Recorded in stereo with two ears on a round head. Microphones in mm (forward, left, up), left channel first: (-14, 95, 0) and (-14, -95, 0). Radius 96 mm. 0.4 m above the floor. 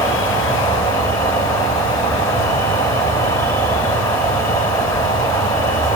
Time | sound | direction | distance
0.0 | an insect | 15° left (ahead or behind) | 1.3 m